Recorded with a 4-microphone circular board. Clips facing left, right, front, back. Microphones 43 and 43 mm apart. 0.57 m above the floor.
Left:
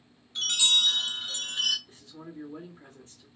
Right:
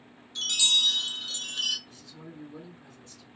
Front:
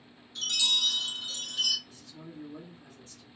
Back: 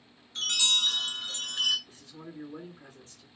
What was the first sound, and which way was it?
A chime, 150° left.